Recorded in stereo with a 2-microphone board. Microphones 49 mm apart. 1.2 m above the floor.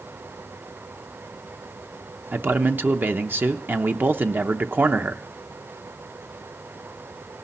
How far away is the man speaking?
About 0.7 m.